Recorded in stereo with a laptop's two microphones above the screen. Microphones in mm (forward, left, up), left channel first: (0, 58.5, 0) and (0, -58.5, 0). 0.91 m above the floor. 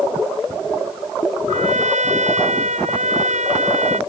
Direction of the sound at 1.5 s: 85° right.